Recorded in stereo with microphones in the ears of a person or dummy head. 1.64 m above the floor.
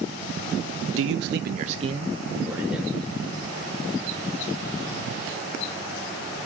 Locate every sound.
1.0 s a man speaking: 85° right, 0.9 m; by 3.0 s centre (ahead or behind), 1.6 m